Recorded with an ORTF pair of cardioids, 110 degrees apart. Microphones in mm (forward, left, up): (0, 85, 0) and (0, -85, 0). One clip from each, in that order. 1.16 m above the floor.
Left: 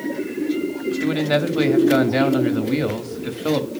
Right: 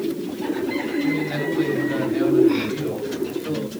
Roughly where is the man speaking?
Ahead left.